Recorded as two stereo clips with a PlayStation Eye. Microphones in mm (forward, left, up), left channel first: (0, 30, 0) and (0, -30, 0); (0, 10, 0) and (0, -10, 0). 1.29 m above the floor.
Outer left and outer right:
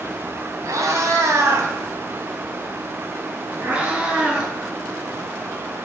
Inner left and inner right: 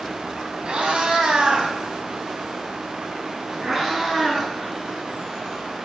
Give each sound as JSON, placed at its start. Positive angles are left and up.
{"t": 0.7, "sound": "a cat meowing", "side_deg": -70, "distance_m": 2.5}